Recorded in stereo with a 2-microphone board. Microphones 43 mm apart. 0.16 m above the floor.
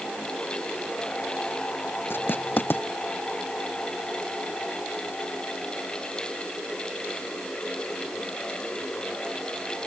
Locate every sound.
2.1 s writing: 55° left (ahead or behind)